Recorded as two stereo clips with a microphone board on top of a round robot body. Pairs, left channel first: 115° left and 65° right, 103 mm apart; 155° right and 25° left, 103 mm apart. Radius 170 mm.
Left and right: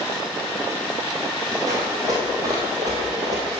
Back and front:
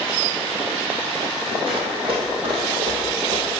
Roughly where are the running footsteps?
Ahead.